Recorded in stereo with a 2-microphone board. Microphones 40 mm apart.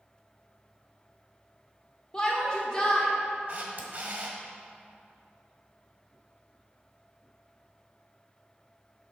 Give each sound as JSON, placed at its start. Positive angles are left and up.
{"t": 2.1, "sound": "a shout", "side_deg": 20, "distance_m": 1.1}
{"t": 3.5, "sound": "a camera shutter", "side_deg": -40, "distance_m": 1.4}